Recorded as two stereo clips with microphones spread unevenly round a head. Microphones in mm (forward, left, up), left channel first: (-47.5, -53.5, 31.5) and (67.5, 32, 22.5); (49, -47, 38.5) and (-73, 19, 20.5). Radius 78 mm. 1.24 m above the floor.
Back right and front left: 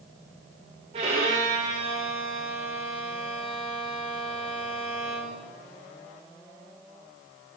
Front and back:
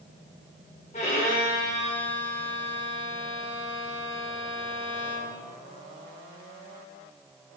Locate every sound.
0.9 s a violin: 5° right, 1.2 m